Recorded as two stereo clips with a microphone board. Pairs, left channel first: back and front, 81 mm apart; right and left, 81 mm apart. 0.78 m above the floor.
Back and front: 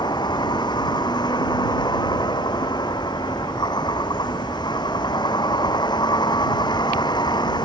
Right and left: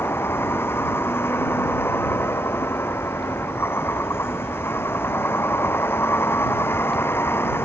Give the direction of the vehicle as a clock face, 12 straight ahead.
5 o'clock.